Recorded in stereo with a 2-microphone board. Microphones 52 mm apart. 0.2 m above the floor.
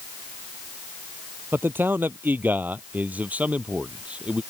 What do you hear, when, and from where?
1.5 s a man speaking: 45° right (ahead or behind); by 4.4 s 20° right (ahead or behind)